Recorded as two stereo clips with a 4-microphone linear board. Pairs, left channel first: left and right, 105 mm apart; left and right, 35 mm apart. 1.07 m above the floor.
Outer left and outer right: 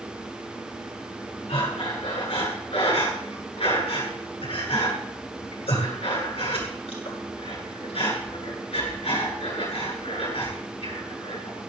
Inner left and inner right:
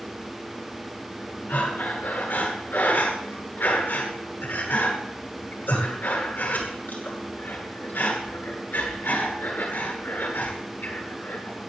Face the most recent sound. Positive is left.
turn(degrees=65)  # may be behind; listen again after turning